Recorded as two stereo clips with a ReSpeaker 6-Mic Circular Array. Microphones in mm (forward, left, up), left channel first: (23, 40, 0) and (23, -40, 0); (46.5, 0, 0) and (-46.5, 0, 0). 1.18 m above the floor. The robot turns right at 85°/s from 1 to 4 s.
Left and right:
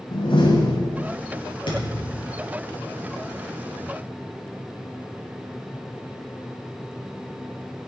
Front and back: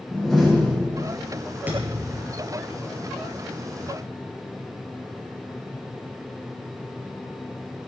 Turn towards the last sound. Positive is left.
turn(degrees=-55)